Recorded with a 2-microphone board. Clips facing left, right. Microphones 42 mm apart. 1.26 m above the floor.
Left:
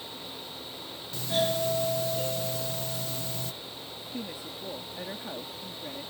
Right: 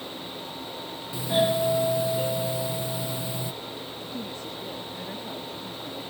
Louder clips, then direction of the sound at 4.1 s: Right 1 dB; 10° left (ahead or behind).